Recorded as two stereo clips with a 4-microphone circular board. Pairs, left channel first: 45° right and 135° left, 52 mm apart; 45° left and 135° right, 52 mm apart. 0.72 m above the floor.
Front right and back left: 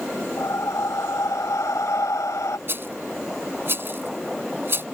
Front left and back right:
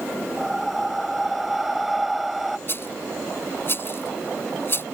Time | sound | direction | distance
0.4 | breathing | 50° right | ?
2.7 | a rattle | 90° left | ?